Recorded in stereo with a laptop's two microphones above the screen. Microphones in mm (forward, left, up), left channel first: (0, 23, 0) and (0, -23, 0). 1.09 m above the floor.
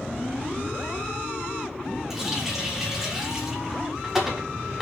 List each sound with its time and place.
2.1 s a running tap: 5° right (ahead or behind), 1.8 m